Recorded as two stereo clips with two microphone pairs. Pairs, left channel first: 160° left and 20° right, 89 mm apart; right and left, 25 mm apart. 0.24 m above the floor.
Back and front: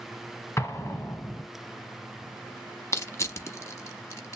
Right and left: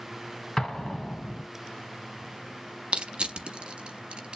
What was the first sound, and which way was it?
An explosion, 150° right.